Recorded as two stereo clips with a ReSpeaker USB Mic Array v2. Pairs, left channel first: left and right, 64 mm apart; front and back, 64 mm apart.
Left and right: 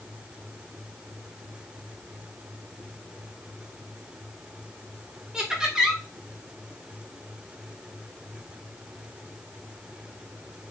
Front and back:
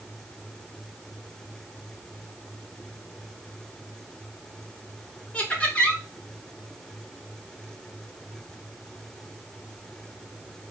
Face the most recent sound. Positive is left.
turn(degrees=-25)